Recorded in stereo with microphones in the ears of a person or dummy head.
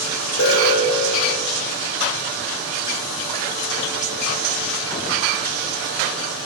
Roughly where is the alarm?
Left.